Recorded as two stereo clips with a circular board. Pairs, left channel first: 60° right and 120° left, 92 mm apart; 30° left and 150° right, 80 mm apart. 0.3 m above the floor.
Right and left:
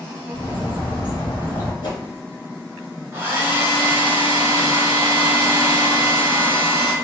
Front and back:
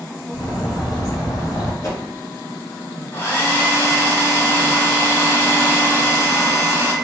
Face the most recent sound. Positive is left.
turn(degrees=75)